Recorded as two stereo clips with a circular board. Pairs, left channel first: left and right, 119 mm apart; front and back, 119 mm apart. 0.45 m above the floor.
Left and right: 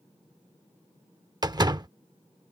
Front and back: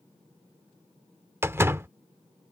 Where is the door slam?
120° right.